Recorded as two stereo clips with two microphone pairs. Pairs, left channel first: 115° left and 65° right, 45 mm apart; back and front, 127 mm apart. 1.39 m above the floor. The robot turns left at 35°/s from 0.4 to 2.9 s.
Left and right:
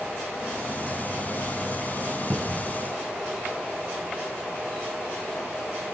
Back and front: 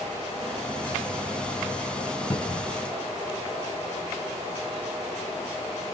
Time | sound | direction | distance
2.3 | a cupboard door | 120° right | 0.9 m